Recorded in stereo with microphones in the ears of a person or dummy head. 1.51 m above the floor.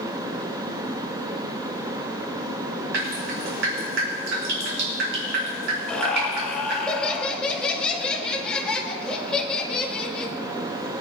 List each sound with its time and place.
2.9 s dripping: 65° right (ahead or behind), 4 m
5.9 s laughter: 5° left (ahead or behind), 2 m